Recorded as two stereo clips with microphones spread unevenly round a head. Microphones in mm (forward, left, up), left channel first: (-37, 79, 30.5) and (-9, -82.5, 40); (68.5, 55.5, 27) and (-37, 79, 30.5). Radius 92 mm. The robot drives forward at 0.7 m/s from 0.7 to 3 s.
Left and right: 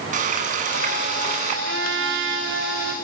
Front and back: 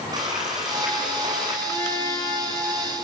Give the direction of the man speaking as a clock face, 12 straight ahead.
I don't hear a man speaking.